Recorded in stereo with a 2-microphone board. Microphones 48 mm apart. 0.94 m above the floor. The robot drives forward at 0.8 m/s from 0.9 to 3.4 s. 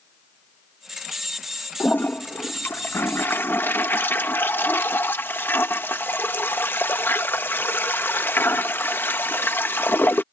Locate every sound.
1.8 s a toilet flushing: 40° left (ahead or behind); by 10.2 s 50° left (ahead or behind)